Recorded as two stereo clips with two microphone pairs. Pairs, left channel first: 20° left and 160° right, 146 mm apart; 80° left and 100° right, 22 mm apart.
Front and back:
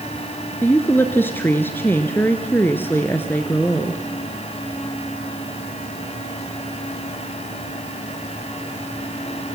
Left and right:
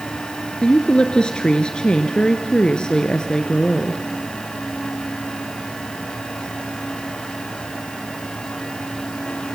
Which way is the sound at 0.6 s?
85° left.